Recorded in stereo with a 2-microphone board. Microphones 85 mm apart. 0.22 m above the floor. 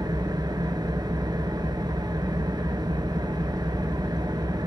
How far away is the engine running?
About 0.8 m.